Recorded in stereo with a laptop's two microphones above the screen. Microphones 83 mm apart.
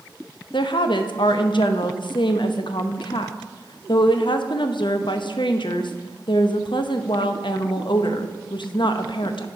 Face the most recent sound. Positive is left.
turn(degrees=75)  # may be behind; listen again after turning